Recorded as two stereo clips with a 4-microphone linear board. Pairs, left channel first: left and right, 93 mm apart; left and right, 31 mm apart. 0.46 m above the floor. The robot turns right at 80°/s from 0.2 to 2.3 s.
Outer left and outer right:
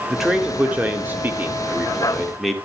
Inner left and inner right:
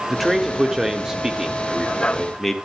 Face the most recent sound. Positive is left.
turn(degrees=0)  # may be behind; listen again after turning